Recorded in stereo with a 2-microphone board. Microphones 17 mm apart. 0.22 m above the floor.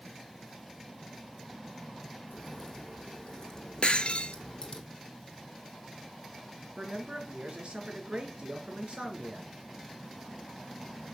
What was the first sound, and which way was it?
A crack, 30° left (ahead or behind).